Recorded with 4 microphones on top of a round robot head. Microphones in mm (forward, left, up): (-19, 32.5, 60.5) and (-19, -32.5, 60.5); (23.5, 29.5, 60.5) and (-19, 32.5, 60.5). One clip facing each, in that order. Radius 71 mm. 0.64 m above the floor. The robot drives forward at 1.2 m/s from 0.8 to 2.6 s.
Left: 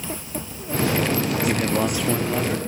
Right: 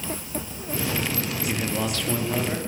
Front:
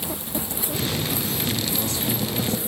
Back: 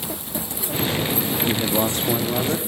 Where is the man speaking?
145° left, 1.2 m; by 2.6 s 170° left, 2 m.